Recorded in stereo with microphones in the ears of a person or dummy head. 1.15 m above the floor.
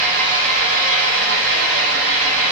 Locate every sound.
0.0 s an engine running: 75° right (ahead or behind), 3 m